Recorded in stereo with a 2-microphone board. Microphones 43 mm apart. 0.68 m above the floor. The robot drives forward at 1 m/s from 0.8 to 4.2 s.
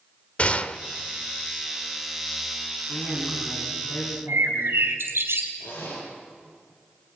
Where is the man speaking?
40° left (ahead or behind), 6.5 m; by 4.8 s 50° left (ahead or behind), 5.5 m.